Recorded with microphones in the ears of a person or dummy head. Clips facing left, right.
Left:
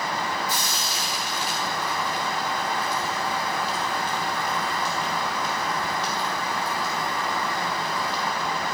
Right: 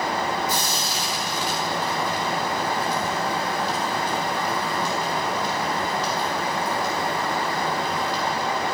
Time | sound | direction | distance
0.5 | frying | 45° right (ahead or behind) | 4 m